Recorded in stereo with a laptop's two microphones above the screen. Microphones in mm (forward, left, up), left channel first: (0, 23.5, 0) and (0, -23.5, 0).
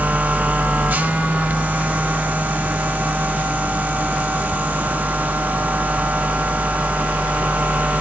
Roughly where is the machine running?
Right.